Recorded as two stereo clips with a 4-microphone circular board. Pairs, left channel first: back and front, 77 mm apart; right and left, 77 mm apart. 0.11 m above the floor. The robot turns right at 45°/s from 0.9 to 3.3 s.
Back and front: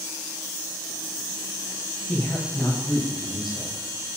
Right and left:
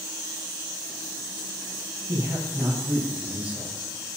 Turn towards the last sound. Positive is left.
turn(degrees=160)